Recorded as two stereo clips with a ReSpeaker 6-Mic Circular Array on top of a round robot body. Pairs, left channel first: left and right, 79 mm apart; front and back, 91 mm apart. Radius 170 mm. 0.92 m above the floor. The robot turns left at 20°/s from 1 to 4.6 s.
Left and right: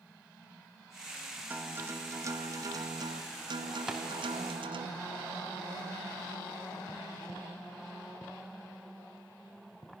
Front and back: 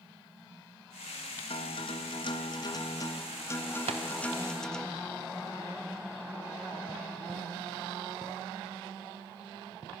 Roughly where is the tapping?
Behind.